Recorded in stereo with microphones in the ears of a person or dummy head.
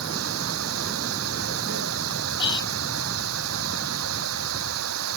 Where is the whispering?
25° left (ahead or behind).